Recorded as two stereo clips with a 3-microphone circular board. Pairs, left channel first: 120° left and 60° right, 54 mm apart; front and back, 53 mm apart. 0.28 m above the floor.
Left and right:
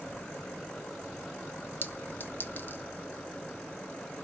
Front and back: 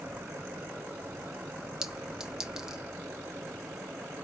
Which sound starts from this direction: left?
A clink, at 1.8 s.